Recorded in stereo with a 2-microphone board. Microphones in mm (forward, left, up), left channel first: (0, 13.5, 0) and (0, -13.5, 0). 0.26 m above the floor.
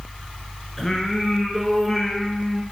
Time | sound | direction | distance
0.8 | singing | 15° left (ahead or behind) | 2.5 m